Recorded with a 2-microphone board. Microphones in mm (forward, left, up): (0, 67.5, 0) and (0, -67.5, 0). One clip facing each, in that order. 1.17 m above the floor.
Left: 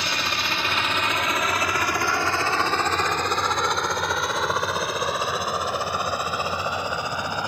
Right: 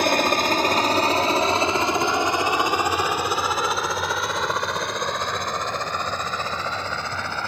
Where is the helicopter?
50° right (ahead or behind); by 7.5 s 15° left (ahead or behind).